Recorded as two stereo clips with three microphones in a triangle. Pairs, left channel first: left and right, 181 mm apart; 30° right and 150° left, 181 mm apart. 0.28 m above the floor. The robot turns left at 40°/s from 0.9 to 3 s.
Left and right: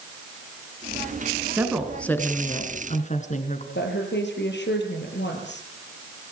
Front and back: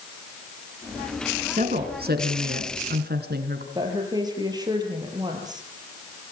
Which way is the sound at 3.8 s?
85° left.